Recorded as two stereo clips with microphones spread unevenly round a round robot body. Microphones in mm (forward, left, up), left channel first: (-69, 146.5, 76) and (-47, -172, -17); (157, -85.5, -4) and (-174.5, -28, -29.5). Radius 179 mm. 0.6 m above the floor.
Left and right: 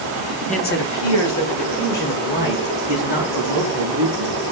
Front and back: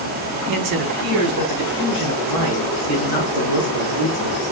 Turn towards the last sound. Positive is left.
turn(degrees=120)